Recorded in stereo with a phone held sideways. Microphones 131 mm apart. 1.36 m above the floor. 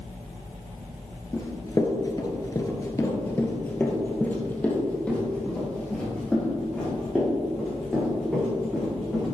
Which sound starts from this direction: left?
Running footsteps, at 1.3 s.